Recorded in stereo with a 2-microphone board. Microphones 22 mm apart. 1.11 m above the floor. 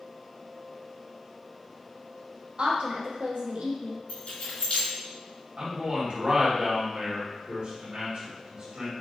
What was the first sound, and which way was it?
A woman speaking, 50° right (ahead or behind).